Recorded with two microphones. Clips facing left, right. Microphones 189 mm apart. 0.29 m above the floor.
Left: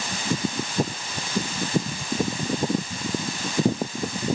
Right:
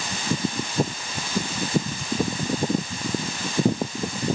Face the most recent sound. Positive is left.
No sound to turn to.